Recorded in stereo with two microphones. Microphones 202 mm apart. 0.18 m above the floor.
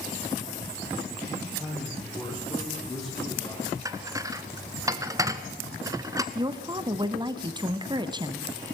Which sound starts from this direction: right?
A woman speaking, at 6.3 s.